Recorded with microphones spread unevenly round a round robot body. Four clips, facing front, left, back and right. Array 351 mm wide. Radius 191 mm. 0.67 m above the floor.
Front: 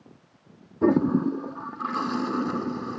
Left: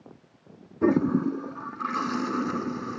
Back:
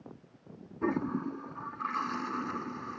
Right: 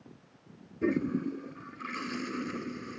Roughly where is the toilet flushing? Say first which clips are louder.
Left 7 dB, front 11 dB; ahead left.